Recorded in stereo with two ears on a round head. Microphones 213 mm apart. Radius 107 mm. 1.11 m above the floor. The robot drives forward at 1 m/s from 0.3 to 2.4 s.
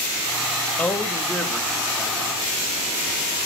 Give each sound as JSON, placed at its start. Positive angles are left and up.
{"t": 0.8, "sound": "a man speaking", "side_deg": 5, "distance_m": 1.2}